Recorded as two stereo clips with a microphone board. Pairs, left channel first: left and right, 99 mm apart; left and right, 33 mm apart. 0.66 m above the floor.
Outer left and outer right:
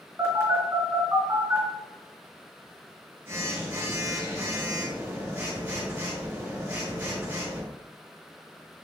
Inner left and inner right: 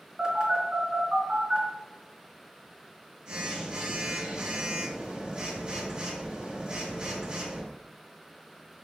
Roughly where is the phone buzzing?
Right.